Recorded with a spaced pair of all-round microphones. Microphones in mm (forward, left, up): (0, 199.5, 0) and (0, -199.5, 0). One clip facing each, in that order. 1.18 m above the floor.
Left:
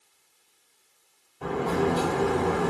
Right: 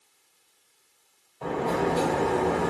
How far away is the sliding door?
About 1.3 m.